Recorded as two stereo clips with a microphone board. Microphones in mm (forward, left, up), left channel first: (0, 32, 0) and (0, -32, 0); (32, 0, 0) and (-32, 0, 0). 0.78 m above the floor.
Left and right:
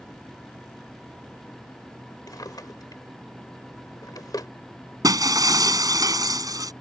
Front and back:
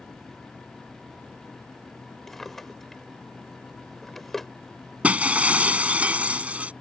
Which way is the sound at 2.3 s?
85° left.